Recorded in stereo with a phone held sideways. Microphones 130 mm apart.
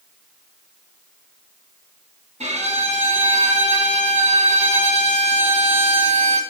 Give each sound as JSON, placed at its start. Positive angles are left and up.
{"t": 2.4, "sound": "a violin", "side_deg": -60, "distance_m": 3.5}